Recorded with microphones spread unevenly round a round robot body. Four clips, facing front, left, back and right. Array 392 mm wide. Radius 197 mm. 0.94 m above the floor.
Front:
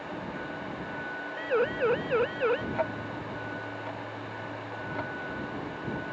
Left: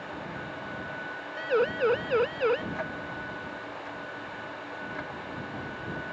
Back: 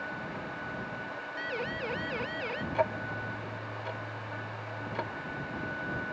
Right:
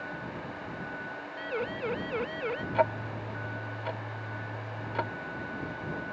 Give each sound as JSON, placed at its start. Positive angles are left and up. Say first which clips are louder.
{"t": 1.4, "sound": "a siren", "louder": "left 9 dB, front 10 dB", "azimuth_deg": 65}
{"t": 2.7, "sound": "ticking", "louder": "right 7 dB, back 1 dB", "azimuth_deg": -115}